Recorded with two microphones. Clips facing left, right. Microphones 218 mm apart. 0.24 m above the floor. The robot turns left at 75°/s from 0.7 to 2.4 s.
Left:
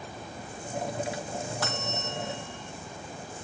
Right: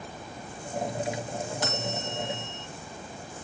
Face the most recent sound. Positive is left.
turn(degrees=-85)